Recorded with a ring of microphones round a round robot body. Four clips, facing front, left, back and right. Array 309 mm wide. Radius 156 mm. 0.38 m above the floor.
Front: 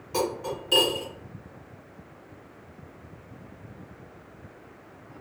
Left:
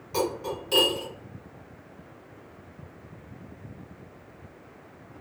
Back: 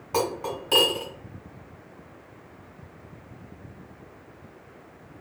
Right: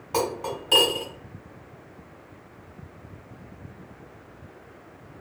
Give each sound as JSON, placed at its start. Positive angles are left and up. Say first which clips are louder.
{"t": 0.1, "sound": "cutlery clinking", "louder": "right 1 dB, back 1 dB", "azimuth_deg": -150, "distance_m": 1.3}